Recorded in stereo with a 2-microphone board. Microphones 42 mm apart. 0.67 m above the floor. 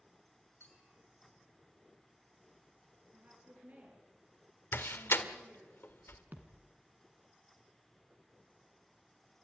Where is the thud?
50° right (ahead or behind), 3 m.